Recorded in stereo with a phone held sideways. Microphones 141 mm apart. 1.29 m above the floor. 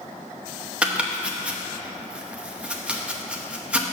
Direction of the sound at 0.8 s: 10° right (ahead or behind).